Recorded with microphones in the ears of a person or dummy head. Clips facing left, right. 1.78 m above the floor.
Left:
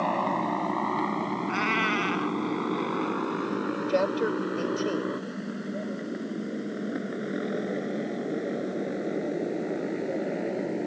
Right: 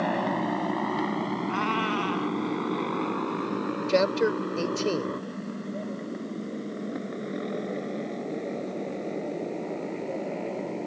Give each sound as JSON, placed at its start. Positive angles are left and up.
{"t": 0.0, "sound": "a motorcycle", "side_deg": -10}
{"t": 1.5, "sound": "a cat meowing", "side_deg": 25}
{"t": 3.9, "sound": "a man speaking", "side_deg": -30}